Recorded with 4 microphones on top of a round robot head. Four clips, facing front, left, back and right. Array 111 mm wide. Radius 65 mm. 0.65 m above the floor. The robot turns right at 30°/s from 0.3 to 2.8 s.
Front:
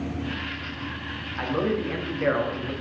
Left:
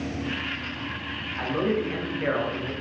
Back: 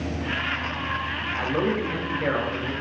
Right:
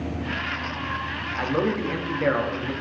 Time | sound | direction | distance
1.4 | a man speaking | 95° right | 0.5 m